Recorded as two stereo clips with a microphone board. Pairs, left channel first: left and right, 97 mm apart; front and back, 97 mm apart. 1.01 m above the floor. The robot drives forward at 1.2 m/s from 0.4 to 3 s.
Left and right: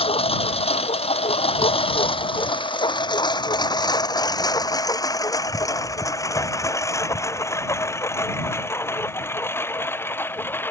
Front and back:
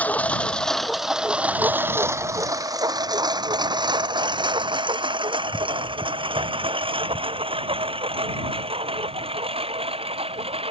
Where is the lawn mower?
75° left; by 10.7 s 160° left.